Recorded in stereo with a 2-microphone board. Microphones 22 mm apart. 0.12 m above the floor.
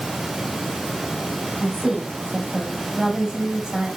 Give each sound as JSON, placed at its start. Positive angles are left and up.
{"t": 1.6, "sound": "a woman speaking", "side_deg": -30, "distance_m": 4.5}